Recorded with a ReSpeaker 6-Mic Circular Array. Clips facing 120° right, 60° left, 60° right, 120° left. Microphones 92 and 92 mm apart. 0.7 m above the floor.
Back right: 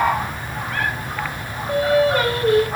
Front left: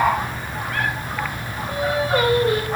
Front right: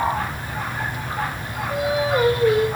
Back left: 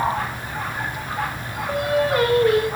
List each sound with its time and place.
1.7 s singing: 140° left, 9 m